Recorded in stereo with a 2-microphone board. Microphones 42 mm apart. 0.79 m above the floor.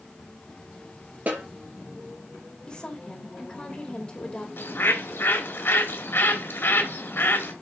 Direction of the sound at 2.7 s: 25° left (ahead or behind).